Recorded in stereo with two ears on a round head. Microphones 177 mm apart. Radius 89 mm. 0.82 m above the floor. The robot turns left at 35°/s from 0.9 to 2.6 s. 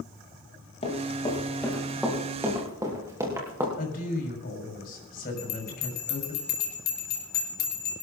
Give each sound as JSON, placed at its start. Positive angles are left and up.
{"t": 0.8, "sound": "running footsteps", "side_deg": 35, "distance_m": 5.5}
{"t": 3.8, "sound": "a woman speaking", "side_deg": 50, "distance_m": 5.5}
{"t": 5.4, "sound": "a bell", "side_deg": 50, "distance_m": 3.5}